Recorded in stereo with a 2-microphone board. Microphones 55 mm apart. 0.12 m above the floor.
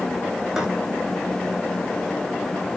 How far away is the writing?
About 5 m.